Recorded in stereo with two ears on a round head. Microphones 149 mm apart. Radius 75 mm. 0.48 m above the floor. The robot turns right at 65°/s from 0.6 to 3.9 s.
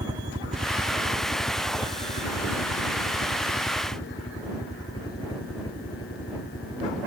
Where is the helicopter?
25° right (ahead or behind); by 7.1 s 30° left (ahead or behind).